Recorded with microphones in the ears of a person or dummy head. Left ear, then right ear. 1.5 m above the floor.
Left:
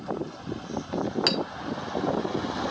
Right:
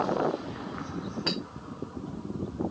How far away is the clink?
About 0.5 m.